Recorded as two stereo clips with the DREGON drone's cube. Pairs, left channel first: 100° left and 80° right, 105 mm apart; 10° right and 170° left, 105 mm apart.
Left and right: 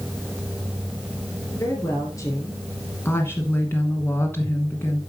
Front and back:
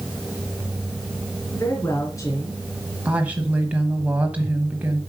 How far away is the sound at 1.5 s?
About 3 m.